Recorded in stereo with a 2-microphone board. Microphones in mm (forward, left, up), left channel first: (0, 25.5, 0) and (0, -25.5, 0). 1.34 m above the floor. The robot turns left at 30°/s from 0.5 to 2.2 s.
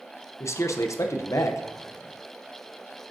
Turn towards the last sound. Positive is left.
turn(degrees=60)